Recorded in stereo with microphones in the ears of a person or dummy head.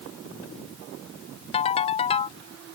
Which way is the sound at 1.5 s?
30° left (ahead or behind).